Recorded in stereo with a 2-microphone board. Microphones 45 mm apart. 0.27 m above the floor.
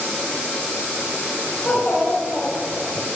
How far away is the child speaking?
About 1.2 m.